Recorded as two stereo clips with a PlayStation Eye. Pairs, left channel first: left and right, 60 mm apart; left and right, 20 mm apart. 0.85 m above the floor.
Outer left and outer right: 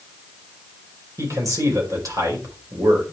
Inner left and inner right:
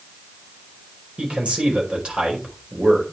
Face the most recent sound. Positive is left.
turn(degrees=-60)  # may be behind; listen again after turning